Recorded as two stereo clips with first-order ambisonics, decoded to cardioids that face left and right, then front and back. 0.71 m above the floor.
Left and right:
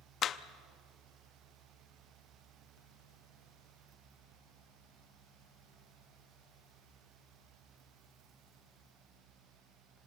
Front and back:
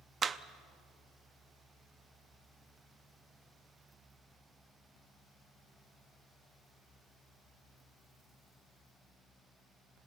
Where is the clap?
125° left, 0.6 m.